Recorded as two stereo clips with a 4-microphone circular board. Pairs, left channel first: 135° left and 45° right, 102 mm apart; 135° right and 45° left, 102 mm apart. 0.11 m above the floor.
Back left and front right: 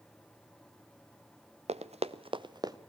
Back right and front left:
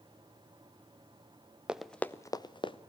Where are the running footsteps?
35° right, 0.8 m; by 2.8 s 100° right, 1.1 m.